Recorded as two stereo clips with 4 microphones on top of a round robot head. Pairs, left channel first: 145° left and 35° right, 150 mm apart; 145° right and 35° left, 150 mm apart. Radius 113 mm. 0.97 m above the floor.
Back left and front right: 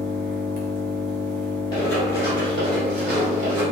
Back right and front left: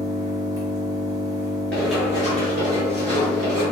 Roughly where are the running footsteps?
Behind left.